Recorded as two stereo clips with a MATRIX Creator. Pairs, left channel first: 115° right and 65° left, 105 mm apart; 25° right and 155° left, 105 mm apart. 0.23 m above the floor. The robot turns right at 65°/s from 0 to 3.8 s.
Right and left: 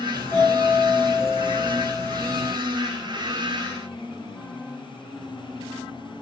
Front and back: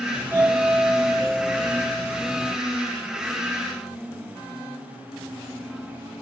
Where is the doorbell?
175° right, 1.4 m; by 2.5 s 20° right, 1.4 m.